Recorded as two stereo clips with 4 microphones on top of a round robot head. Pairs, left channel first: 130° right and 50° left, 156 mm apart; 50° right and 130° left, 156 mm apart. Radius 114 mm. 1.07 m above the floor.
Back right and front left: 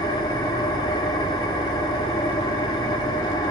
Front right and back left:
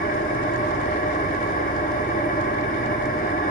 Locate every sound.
0.0 s an engine running: 70° right, 0.7 m